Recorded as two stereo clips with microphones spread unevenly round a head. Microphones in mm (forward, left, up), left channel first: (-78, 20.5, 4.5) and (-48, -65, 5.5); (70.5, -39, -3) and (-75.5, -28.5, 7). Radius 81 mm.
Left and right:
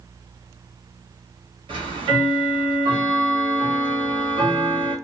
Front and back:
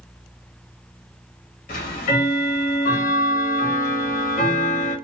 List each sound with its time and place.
1.7 s ticking: 30° right, 0.9 m